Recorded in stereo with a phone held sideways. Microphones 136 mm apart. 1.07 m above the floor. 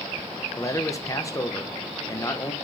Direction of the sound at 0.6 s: 25° left (ahead or behind).